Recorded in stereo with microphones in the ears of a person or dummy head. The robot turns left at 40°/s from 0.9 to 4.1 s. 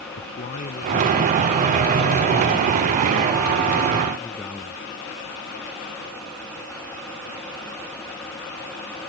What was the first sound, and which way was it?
A man speaking, 135° left.